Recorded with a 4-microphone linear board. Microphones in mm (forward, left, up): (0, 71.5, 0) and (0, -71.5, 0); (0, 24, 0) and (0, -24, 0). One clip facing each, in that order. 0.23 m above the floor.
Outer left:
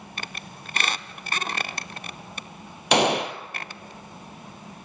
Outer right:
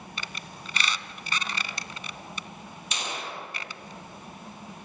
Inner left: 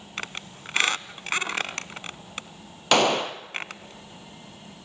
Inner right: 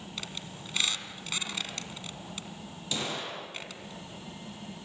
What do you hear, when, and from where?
0.2 s a squeak: 50° left (ahead or behind), 0.8 m
2.9 s a gunshot: 70° left (ahead or behind), 1.0 m